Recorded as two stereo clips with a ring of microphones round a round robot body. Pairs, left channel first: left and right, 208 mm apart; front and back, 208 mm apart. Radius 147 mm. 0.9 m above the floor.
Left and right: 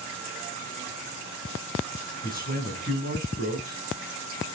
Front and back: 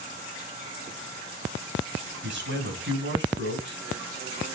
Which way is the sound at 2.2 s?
150° left.